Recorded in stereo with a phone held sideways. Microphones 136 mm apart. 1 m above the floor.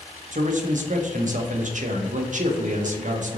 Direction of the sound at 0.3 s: 65° right (ahead or behind).